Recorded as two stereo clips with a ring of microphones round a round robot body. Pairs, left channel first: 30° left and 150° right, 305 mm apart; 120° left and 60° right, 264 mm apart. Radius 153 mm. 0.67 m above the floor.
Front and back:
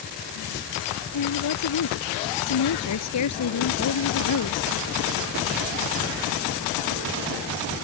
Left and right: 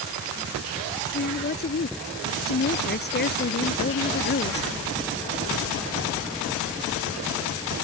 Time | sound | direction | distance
1.1 | a woman speaking | 65° left | ?